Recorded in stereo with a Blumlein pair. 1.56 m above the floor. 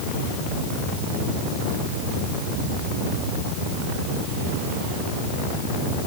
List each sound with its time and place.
Only background noise.